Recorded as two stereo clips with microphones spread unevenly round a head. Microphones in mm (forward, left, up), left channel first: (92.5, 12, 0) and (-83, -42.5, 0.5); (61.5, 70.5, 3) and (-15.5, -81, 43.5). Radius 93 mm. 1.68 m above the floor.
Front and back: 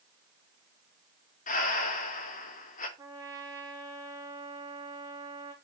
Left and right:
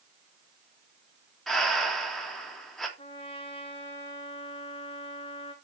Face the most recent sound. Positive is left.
turn(degrees=125)